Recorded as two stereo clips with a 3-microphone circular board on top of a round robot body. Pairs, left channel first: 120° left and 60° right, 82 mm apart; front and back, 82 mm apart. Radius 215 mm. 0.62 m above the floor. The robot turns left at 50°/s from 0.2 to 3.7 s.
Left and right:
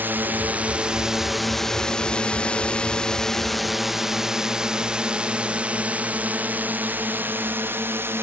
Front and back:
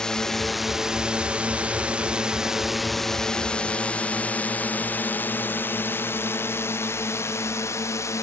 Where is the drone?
70° right; by 8.2 s 15° right.